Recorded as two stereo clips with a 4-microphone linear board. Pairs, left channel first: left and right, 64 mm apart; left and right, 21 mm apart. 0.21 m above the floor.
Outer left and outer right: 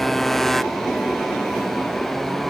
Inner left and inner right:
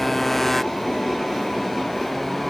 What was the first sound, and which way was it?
A motorcycle, 5° left (ahead or behind).